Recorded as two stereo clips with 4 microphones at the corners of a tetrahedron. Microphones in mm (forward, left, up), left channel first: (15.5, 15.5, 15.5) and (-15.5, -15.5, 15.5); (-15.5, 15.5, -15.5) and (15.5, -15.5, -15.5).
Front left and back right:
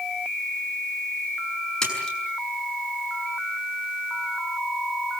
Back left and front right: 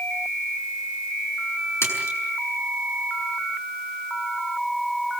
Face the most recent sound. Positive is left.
turn(degrees=120)